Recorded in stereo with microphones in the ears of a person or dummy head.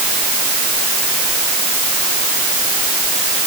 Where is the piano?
No piano in this recording.